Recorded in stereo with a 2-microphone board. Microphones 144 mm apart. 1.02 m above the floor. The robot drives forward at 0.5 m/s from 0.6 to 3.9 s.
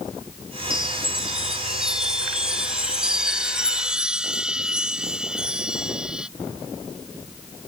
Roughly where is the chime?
Centre.